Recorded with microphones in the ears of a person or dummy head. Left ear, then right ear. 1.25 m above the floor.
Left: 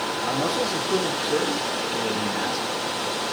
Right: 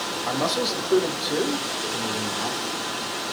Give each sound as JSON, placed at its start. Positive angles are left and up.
{"t": 0.3, "sound": "a man speaking", "side_deg": -45, "distance_m": 2.5}